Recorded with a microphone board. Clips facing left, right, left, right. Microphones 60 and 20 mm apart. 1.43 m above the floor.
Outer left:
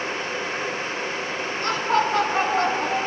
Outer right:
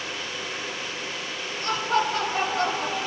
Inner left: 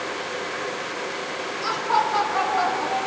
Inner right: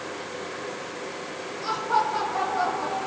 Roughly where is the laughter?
Left.